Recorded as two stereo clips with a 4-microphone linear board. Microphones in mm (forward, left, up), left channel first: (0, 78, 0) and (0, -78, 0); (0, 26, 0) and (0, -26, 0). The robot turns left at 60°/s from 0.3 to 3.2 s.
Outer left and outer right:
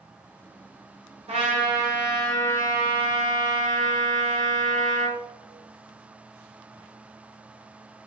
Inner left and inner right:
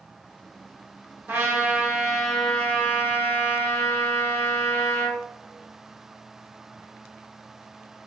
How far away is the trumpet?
About 1.3 m.